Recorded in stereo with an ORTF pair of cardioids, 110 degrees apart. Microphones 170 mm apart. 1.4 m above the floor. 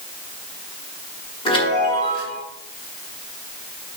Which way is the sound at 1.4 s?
30° left.